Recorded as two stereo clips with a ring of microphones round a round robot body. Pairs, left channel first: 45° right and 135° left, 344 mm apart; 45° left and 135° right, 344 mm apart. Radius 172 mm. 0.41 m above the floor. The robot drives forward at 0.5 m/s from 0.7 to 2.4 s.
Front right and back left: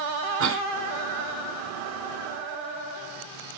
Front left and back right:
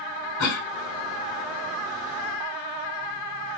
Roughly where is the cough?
Left.